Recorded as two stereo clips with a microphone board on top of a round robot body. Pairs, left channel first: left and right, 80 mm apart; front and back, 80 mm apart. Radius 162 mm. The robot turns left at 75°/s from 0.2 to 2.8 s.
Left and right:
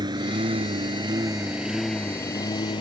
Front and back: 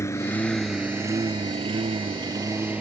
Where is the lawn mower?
55° right; by 2.8 s 105° left.